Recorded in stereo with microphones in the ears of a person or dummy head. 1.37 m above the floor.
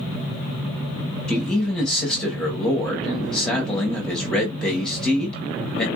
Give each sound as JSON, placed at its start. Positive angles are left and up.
{"t": 1.3, "sound": "a man speaking", "side_deg": 0, "distance_m": 1.0}